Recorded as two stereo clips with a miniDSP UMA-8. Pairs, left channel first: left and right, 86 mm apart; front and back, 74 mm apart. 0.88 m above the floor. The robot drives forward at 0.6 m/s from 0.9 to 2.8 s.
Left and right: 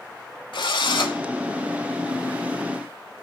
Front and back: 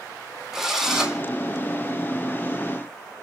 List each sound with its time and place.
0.5 s a drill: 95° left, 2 m; by 1.2 s 100° left, 2 m